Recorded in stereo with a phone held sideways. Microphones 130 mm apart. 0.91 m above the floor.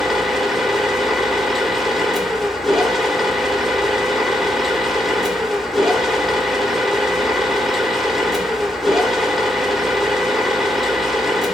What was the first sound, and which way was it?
A machine running, centre (ahead or behind).